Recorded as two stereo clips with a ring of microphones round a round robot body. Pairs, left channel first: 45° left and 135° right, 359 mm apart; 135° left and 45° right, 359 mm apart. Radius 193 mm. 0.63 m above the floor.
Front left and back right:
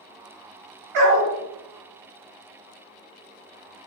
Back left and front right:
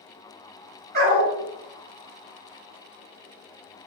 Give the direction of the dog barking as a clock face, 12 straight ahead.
4 o'clock.